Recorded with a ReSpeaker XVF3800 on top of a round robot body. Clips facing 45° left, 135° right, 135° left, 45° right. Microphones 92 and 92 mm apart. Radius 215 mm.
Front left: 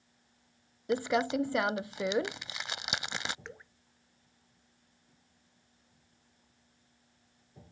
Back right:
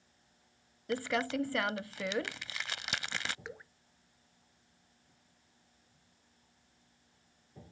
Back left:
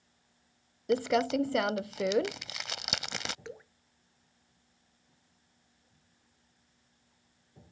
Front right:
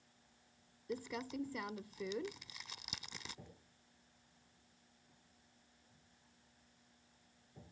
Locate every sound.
0.9 s crumpling: 115° left
3.5 s dripping: 140° left